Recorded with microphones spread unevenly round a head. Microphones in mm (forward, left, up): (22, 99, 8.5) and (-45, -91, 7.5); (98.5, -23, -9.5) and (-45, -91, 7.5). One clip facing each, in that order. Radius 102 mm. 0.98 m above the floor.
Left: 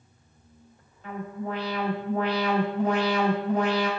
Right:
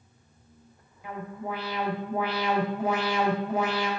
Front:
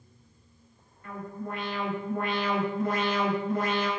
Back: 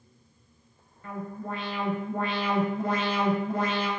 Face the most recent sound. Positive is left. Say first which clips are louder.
# left 2 dB, back 1 dB
turn(degrees=170)